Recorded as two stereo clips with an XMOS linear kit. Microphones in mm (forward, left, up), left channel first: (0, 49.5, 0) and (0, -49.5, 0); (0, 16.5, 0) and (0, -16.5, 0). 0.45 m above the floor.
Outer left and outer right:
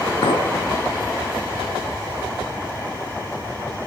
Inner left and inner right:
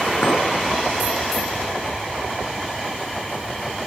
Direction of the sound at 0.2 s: 75° left (ahead or behind).